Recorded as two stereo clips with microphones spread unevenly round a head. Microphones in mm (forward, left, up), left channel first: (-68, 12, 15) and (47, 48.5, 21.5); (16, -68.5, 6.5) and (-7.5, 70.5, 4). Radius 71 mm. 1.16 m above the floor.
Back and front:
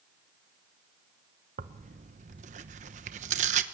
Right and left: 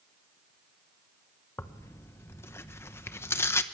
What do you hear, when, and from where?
1.6 s tearing paper: 10° right, 1.0 m